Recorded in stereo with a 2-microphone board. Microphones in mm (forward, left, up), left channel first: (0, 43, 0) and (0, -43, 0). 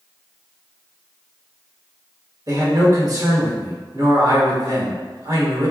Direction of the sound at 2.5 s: 45° right (ahead or behind).